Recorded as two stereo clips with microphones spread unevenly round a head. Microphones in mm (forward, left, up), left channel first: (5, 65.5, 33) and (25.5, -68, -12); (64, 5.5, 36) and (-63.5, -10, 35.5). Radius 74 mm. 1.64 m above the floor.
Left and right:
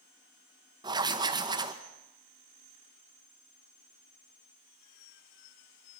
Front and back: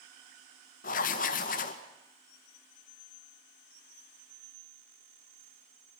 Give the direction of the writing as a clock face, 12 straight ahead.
1 o'clock.